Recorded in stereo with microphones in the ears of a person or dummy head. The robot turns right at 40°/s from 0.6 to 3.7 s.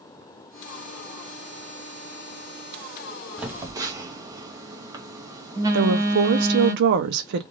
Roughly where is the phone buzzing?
Centre.